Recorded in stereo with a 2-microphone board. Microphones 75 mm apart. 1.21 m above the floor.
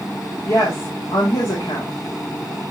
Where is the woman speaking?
90° left, 2 m.